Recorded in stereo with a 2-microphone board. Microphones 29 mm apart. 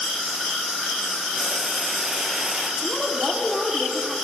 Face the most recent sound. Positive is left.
turn(degrees=-15)  # may be behind; listen again after turning